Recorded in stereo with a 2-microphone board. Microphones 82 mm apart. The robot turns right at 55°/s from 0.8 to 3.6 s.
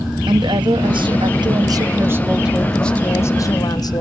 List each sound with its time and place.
0.3 s a woman speaking: 100° right, 1.1 m; by 4.0 s 50° left, 1.1 m